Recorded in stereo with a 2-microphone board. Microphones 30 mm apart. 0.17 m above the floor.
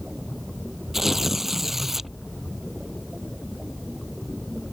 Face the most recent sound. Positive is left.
turn(degrees=-10)  # may be behind; listen again after turning